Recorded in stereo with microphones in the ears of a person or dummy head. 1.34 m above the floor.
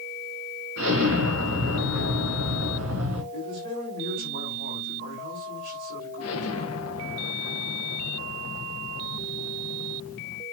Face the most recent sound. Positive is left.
turn(degrees=75)  # may be behind; listen again after turning